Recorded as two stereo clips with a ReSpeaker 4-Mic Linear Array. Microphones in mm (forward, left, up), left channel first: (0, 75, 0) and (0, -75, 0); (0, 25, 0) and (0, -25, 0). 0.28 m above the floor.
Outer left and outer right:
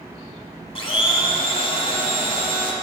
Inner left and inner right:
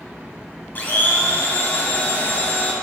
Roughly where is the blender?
Left.